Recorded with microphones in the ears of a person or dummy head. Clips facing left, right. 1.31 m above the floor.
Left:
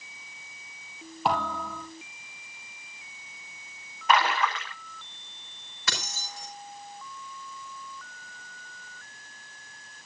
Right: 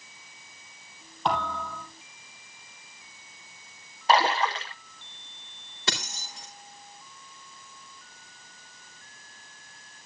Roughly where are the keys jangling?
Right.